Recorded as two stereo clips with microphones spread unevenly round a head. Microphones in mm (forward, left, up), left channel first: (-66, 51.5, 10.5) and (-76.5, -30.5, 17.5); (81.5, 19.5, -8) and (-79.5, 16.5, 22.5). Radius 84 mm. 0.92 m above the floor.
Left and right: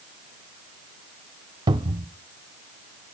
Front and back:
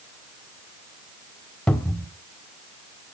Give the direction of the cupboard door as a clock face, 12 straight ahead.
3 o'clock.